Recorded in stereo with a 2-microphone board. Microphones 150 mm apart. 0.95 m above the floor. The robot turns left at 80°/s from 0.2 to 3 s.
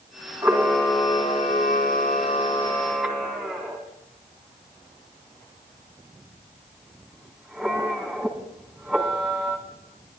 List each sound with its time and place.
0.4 s a camera shutter: 25° right (ahead or behind), 2 m; by 9.6 s centre (ahead or behind), 2 m